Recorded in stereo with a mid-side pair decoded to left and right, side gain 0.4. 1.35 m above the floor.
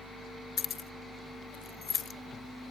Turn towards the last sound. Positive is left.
turn(degrees=45)